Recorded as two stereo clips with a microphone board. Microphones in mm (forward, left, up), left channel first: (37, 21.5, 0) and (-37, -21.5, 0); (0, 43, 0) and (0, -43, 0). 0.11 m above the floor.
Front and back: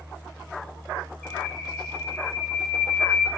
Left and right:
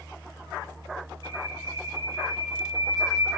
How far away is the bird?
About 6 m.